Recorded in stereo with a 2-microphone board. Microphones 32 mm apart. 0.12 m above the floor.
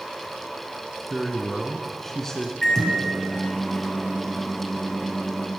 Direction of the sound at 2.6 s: 15° left (ahead or behind).